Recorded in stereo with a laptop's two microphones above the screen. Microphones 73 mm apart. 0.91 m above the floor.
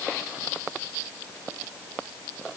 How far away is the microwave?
No microwave in this recording.